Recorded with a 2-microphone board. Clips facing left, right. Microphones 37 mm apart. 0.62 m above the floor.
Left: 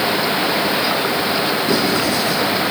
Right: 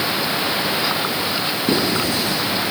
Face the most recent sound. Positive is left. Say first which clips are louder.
# right 1 dB
turn(degrees=-35)  # may be behind; listen again after turning